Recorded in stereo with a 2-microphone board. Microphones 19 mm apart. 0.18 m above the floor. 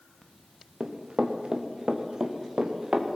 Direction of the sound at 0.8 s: 45° right (ahead or behind).